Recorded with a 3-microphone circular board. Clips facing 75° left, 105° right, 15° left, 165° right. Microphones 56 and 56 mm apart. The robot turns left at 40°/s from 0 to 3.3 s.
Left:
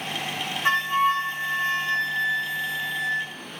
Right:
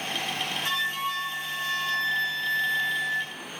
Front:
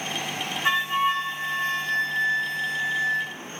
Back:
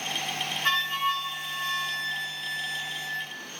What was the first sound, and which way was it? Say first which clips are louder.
A flute: left 10 dB, front 4 dB; 80° left.